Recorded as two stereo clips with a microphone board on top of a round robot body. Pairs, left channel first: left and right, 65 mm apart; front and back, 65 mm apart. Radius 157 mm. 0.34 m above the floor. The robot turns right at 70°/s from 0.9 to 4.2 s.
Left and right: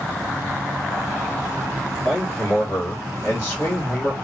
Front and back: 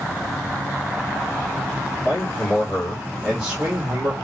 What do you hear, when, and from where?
2.0 s a man speaking: 20° left, 1.8 m; by 4.1 s 165° left, 1.8 m